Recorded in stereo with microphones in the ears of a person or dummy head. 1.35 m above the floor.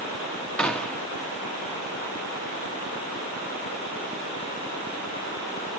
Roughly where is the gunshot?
Centre.